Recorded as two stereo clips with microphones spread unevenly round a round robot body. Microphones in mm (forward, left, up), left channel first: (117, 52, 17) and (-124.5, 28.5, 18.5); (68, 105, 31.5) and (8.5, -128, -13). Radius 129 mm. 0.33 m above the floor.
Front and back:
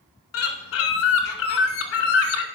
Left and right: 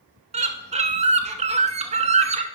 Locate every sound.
0.3 s a bird: 40° right, 0.8 m